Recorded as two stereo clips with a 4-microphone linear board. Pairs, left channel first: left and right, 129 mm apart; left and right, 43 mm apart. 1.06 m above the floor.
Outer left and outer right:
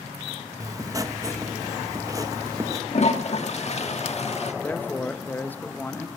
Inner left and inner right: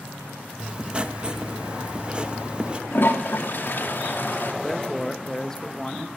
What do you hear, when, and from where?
0.6 s writing: 25° right (ahead or behind), 1.2 m
2.9 s a toilet flushing: 60° left (ahead or behind), 1.6 m
4.6 s a man speaking: 15° left (ahead or behind), 1.0 m